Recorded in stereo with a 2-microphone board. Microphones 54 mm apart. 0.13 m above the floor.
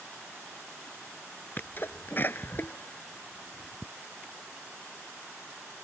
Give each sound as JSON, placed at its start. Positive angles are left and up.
{"t": 1.6, "sound": "a sneeze", "side_deg": 40}